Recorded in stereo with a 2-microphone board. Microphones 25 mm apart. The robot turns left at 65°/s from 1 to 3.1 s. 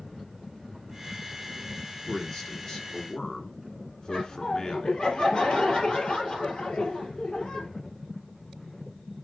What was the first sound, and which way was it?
A man speaking, 165° left.